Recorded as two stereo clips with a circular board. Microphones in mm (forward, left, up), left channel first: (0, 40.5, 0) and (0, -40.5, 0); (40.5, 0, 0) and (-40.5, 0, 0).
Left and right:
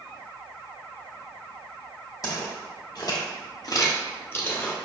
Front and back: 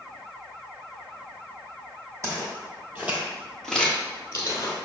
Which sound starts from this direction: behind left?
Footsteps, at 2.2 s.